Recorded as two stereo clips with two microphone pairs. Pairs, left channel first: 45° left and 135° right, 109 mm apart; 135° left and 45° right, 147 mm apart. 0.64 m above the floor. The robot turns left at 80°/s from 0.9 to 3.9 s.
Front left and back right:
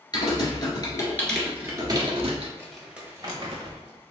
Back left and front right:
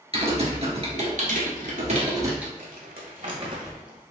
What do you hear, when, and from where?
0.1 s typing on a keyboard: 5° right, 1.5 m; by 2.5 s 130° right, 1.5 m
2.6 s crumpling: 25° right, 1.3 m; by 4.0 s 130° right, 1.3 m